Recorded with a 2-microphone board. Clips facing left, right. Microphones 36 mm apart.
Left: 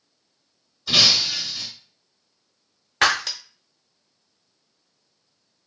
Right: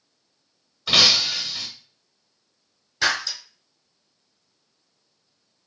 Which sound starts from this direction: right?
Breaking glass, at 0.9 s.